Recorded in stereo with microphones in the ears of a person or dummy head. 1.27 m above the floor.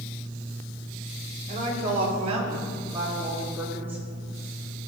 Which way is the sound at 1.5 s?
45° right (ahead or behind).